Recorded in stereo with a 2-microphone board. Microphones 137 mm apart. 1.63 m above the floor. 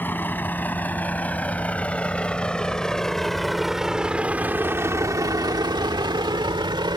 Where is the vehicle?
15° left (ahead or behind); by 7.0 s 35° right (ahead or behind).